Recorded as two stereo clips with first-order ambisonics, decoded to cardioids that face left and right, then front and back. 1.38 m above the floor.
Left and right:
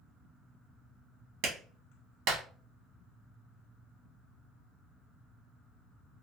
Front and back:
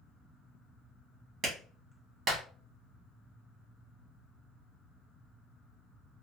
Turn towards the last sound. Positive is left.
turn(degrees=-115)